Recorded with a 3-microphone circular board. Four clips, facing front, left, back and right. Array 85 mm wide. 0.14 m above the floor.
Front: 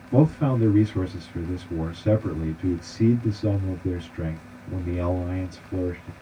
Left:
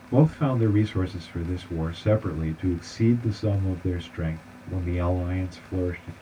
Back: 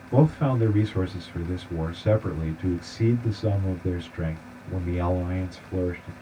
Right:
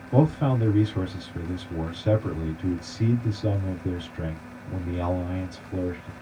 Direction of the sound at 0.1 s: 110° left.